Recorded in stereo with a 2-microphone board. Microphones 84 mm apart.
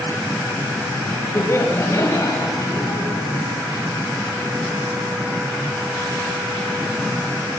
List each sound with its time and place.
1.4 s laughter: 30° left (ahead or behind), 4 m; by 3.1 s 45° left (ahead or behind), 6 m